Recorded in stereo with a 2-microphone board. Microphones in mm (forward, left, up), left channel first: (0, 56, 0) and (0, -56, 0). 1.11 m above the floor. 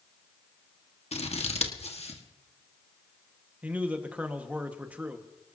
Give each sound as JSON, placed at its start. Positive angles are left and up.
{"t": 1.1, "sound": "scissors", "side_deg": 75, "distance_m": 1.5}
{"t": 3.6, "sound": "a man speaking", "side_deg": -15, "distance_m": 1.5}